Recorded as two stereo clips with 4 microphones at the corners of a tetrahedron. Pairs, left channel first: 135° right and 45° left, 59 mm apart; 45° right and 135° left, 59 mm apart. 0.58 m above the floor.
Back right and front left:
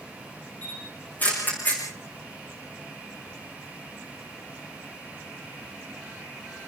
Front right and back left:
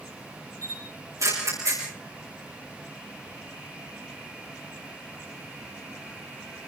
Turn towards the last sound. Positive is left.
turn(degrees=165)